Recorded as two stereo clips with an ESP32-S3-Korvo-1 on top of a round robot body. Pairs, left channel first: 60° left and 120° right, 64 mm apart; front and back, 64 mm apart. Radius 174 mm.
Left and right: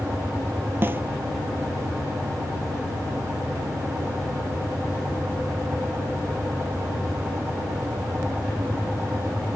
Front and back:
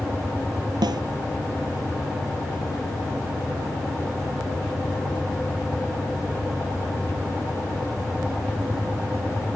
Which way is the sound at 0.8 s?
175° right.